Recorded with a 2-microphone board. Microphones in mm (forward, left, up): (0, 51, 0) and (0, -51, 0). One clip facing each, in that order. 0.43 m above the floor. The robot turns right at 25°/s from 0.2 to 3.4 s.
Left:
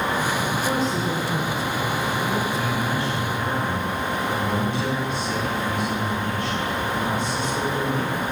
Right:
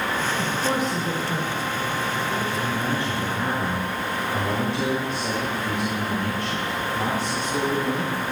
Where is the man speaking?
25° right (ahead or behind), 5.5 m; by 8.2 s 45° right (ahead or behind), 5.5 m.